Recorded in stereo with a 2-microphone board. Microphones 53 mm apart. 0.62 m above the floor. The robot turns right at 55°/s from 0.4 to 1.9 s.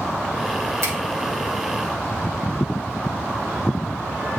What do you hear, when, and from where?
0.8 s a finger snap: 75° right (ahead or behind), 1.9 m